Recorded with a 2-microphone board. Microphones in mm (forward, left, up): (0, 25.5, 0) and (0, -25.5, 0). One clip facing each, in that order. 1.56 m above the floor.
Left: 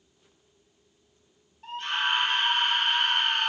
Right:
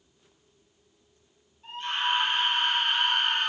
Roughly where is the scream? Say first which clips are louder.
Left 1 dB; left.